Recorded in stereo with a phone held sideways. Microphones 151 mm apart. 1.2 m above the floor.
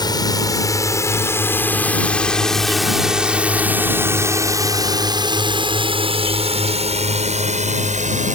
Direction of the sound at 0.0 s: 30° left (ahead or behind).